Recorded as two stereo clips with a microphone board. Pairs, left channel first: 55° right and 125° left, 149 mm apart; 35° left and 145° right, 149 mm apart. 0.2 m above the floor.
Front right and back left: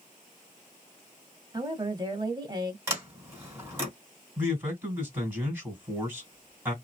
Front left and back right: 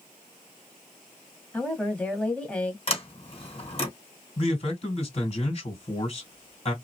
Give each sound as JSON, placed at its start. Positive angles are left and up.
{"t": 1.5, "sound": "a woman speaking", "azimuth_deg": 110, "distance_m": 1.0}
{"t": 2.9, "sound": "a sliding door", "azimuth_deg": 55, "distance_m": 2.0}
{"t": 4.4, "sound": "a man speaking", "azimuth_deg": 55, "distance_m": 2.0}